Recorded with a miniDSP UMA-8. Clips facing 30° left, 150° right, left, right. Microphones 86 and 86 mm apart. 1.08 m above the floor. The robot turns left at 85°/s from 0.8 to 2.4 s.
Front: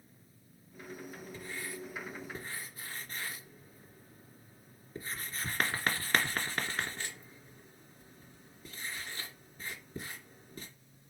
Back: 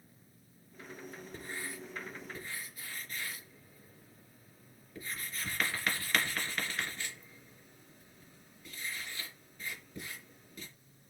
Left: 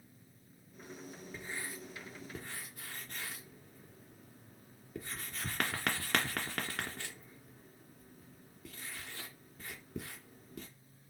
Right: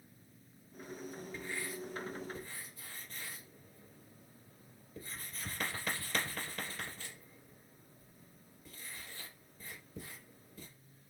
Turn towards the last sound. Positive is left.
turn(degrees=85)